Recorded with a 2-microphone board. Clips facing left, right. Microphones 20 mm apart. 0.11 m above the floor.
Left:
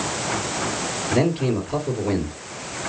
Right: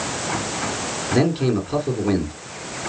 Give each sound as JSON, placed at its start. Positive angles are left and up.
{"t": 1.1, "sound": "a man speaking", "side_deg": -40, "distance_m": 2.0}